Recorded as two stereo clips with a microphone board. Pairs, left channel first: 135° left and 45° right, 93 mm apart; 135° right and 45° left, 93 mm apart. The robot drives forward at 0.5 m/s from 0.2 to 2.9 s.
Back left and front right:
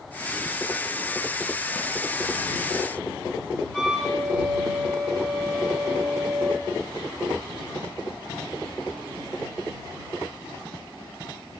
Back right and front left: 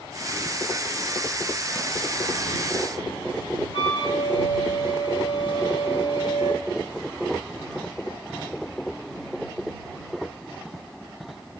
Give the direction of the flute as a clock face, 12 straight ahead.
5 o'clock.